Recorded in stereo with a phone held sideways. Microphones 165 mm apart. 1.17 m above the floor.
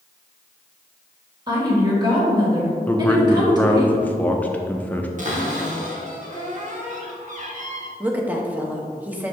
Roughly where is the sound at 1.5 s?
Right.